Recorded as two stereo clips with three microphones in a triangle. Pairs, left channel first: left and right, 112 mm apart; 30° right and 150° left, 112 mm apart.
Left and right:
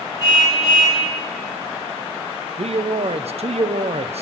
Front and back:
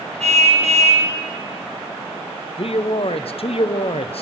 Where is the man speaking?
65° right, 0.5 m.